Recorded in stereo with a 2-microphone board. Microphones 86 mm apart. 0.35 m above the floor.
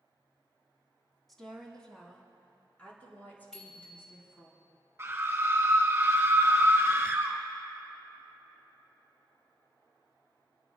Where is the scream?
25° right (ahead or behind), 3 m.